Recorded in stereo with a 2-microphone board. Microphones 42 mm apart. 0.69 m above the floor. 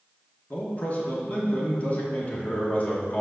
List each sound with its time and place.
0.5 s a man speaking: 40° left (ahead or behind), 1.2 m